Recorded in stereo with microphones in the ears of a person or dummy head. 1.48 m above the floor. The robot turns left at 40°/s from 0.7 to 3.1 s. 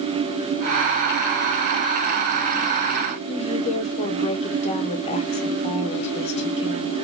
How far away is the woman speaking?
About 0.7 m.